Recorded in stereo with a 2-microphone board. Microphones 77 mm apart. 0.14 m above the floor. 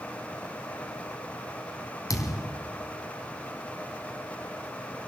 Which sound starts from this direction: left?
A thud, at 2.1 s.